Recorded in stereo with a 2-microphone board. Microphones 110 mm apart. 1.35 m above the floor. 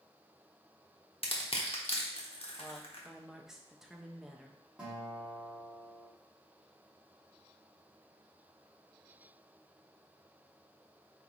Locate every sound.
1.2 s crushing: 60° left (ahead or behind), 0.9 m
2.6 s a woman speaking: 5° right (ahead or behind), 0.7 m
4.8 s a guitar: 10° right (ahead or behind), 2.5 m